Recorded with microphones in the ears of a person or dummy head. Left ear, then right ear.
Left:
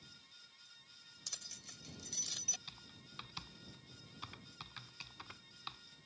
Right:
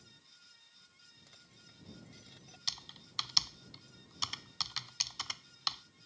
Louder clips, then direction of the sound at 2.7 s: Right 13 dB; 80° right.